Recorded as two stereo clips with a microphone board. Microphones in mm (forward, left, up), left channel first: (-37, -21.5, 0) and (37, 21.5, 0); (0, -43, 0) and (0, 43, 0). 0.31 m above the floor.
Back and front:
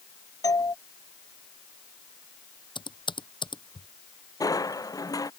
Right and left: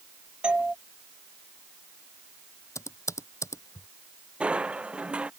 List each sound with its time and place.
0.4 s a doorbell: 170° left
2.8 s typing on a keyboard: 140° right
4.4 s crushing: 165° left